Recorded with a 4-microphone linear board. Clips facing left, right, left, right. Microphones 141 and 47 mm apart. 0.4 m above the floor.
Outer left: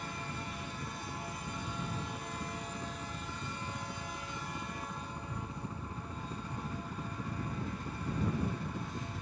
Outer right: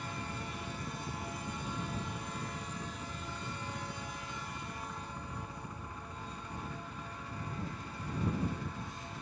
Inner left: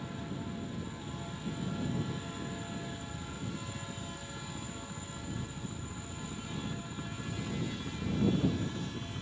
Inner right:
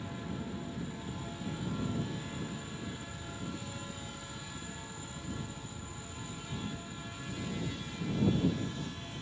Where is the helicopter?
15° right (ahead or behind); by 9.2 s 65° left (ahead or behind).